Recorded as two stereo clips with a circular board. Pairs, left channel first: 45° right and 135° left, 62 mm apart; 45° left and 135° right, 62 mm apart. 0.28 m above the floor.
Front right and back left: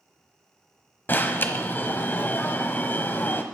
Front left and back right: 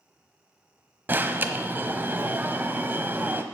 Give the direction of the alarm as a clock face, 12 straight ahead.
3 o'clock.